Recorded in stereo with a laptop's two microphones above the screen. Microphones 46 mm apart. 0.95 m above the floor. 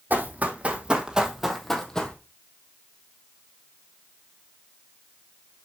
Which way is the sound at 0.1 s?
40° right (ahead or behind).